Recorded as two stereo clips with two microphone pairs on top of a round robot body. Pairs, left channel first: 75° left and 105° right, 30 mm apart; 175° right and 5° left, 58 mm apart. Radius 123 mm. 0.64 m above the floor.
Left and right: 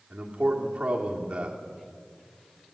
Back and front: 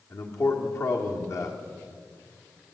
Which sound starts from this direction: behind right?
A man speaking, at 0.1 s.